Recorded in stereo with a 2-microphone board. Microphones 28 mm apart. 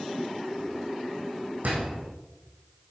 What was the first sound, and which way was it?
A door slam, 70° right (ahead or behind).